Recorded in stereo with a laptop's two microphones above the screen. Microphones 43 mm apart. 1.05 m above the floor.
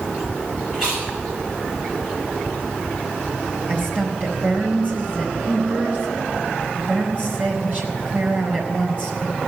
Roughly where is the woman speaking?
Right.